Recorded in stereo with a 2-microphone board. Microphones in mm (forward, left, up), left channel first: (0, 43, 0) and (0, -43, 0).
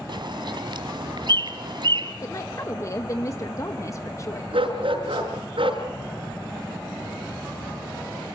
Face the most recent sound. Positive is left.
turn(degrees=-85)